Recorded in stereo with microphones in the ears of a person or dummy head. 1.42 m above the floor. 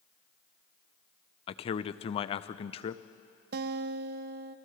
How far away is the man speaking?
About 0.6 m.